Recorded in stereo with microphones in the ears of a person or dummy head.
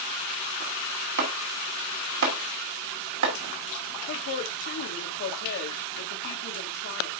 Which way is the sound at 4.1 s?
60° left (ahead or behind).